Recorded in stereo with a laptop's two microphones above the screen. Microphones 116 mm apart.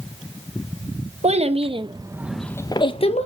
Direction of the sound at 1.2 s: 60° right (ahead or behind).